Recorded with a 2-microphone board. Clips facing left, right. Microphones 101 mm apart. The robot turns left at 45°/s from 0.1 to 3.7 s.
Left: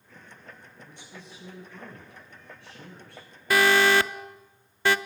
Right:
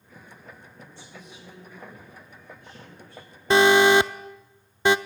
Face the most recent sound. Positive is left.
turn(degrees=-20)  # may be behind; listen again after turning